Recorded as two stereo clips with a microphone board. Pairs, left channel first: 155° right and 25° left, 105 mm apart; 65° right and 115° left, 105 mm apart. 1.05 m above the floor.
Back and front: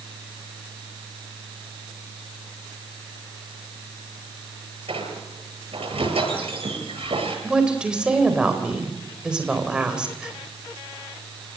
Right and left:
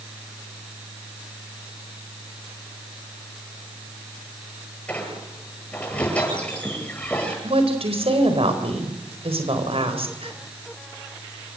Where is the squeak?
10° left, 9 m.